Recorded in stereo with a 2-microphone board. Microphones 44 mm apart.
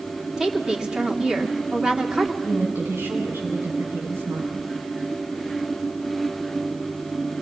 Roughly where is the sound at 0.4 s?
Centre.